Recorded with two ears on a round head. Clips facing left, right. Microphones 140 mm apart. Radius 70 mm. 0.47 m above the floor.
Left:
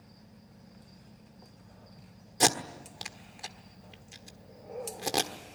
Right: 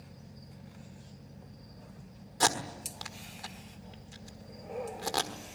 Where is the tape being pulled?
25° left (ahead or behind), 1.3 m.